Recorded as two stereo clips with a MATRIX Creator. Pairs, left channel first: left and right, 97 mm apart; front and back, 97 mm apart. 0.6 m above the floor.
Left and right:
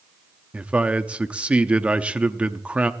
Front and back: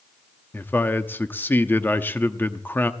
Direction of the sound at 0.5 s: 30° right.